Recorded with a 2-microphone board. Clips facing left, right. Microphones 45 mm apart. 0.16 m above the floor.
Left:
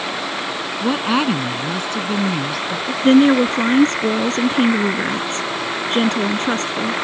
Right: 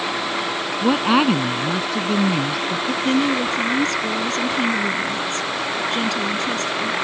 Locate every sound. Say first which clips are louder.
0.8 s a woman speaking: right 2 dB; 10° right (ahead or behind)
3.0 s a woman speaking: left 9 dB; 40° left (ahead or behind)